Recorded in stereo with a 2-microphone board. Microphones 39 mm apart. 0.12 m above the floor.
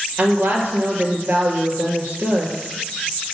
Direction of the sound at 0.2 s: 50° right (ahead or behind).